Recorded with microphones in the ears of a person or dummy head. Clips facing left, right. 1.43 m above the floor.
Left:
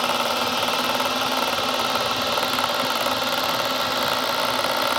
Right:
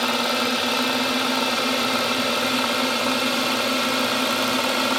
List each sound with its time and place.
0.0 s a drone: 25° right (ahead or behind); by 5.0 s 40° right (ahead or behind)